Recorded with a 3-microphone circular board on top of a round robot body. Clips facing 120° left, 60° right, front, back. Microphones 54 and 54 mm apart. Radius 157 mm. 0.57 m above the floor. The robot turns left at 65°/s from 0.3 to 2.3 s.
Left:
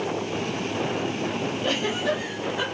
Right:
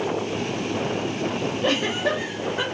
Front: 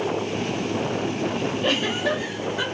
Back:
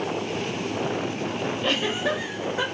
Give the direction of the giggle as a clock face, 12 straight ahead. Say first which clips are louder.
Right 3 dB, front 1 dB; 3 o'clock.